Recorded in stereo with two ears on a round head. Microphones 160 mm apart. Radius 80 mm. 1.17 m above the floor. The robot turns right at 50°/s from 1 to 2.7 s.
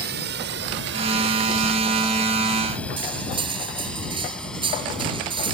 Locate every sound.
0.0 s a drone: 60° right (ahead or behind); by 5.5 s 5° left (ahead or behind)
3.0 s cutlery clinking: 30° right (ahead or behind)